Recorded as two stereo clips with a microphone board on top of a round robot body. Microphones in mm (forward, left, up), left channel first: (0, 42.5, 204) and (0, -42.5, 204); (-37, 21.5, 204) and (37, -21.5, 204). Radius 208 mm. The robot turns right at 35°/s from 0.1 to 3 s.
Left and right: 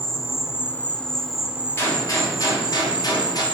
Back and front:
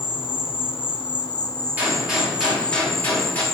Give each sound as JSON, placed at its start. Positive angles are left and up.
{"t": 0.0, "sound": "an insect", "azimuth_deg": 140, "distance_m": 0.9}
{"t": 1.8, "sound": "a gunshot", "azimuth_deg": 40, "distance_m": 2.0}